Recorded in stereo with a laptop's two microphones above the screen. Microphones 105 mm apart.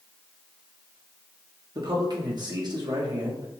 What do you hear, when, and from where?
1.8 s a man speaking: 45° right (ahead or behind), 1.3 m